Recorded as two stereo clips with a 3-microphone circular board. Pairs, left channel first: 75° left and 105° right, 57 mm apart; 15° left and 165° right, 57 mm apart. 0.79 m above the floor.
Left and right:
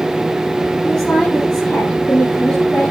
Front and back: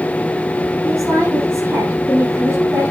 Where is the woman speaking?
155° left, 8 m; by 2.9 s 145° left, 9.5 m.